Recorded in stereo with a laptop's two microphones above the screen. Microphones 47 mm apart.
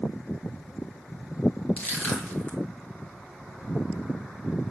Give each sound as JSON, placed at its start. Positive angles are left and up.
{"t": 1.8, "sound": "crushing", "side_deg": 35, "distance_m": 1.1}